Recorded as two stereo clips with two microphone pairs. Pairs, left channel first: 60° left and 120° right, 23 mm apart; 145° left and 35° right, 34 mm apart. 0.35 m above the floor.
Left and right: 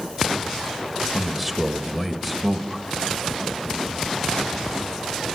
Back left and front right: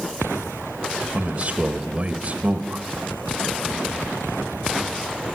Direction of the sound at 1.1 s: 35° right.